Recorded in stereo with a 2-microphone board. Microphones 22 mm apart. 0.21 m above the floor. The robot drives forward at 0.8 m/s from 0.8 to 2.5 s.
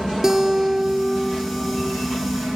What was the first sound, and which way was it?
A guitar, 25° right (ahead or behind).